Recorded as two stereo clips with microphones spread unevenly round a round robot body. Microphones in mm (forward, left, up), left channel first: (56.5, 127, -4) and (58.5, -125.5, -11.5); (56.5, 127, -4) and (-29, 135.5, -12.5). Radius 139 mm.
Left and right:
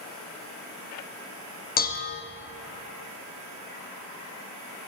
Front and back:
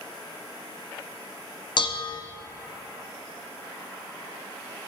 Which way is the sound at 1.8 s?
35° left.